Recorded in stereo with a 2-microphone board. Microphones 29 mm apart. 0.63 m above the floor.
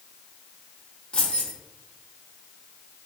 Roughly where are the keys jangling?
Left.